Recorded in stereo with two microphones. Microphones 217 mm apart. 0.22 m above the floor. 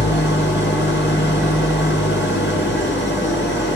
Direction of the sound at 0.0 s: 65° left (ahead or behind).